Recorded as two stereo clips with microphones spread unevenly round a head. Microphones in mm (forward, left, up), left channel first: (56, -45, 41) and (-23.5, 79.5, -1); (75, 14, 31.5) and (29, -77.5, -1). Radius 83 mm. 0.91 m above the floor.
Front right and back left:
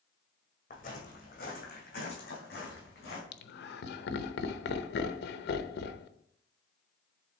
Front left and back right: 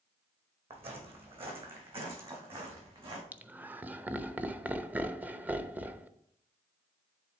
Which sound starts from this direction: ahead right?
Laughter, at 3.3 s.